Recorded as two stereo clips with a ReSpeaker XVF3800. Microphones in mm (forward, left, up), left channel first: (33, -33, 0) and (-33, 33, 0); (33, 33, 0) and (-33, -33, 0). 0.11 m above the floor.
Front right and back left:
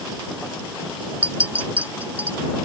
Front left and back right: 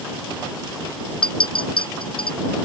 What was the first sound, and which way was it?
A clink, 60° left.